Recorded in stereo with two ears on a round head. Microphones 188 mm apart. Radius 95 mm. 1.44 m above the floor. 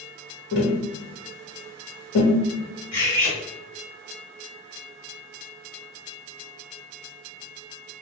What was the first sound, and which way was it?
Tapping, 60° left (ahead or behind).